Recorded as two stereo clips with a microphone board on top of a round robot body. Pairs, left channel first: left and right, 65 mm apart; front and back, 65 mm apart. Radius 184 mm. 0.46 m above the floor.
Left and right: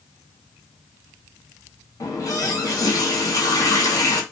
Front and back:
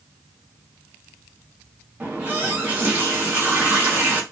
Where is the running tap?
115° left, 1.0 m.